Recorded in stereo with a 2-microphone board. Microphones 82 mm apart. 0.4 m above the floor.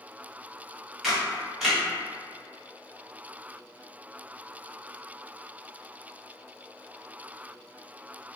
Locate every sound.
1.0 s a camera shutter: centre (ahead or behind), 1.0 m